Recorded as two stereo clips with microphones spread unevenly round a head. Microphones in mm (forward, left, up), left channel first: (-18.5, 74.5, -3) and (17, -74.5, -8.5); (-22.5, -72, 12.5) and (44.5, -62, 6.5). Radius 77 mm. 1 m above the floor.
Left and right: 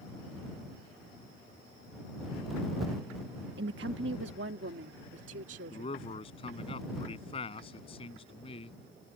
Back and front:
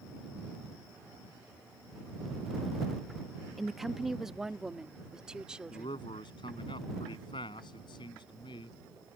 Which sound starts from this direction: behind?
A man speaking, at 5.7 s.